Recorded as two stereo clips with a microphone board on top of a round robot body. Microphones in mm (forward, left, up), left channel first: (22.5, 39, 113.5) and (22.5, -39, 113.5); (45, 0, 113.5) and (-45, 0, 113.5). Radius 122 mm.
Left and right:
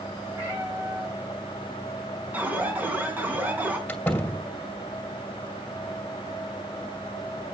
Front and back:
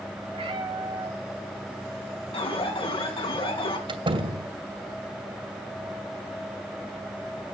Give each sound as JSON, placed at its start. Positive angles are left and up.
{"t": 0.3, "sound": "a cat meowing", "azimuth_deg": -155, "distance_m": 7.0}
{"t": 2.3, "sound": "an alarm", "azimuth_deg": -20, "distance_m": 4.0}
{"t": 3.9, "sound": "a door slam", "azimuth_deg": 160, "distance_m": 2.5}